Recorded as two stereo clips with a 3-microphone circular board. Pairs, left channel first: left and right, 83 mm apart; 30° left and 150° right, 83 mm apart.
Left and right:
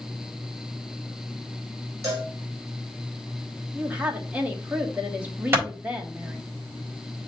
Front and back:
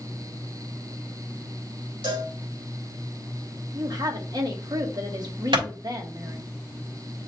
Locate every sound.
2.0 s a cowbell: 145° right, 5 m
3.7 s a woman speaking: 160° right, 1.6 m
5.5 s a clap: 150° right, 4 m